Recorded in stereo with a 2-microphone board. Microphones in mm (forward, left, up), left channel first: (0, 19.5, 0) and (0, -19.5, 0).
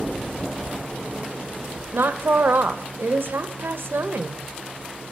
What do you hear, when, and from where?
1.9 s a woman speaking: 70° right (ahead or behind), 0.7 m